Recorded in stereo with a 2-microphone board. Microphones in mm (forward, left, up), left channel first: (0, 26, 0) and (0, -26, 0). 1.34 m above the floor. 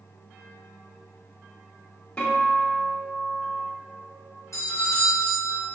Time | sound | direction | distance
2.2 | a guitar | 20° left (ahead or behind) | 2.5 m
4.5 | a doorbell | 70° left (ahead or behind) | 1.6 m